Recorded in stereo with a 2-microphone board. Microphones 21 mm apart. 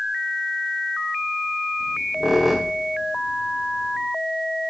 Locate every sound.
1.8 s a squeak: 15° right (ahead or behind), 1.5 m